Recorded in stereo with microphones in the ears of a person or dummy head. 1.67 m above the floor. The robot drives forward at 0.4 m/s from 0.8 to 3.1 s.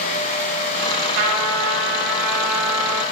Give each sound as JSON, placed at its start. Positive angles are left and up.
{"t": 1.1, "sound": "a trumpet", "side_deg": -65, "distance_m": 3.5}